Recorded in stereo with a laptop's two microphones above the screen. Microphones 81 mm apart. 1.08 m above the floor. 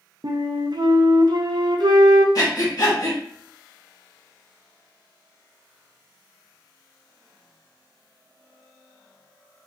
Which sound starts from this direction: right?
A flute, at 0.2 s.